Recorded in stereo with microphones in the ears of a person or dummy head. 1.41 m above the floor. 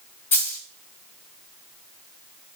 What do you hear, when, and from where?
0.3 s a dropped coin: 5° left (ahead or behind), 1.6 m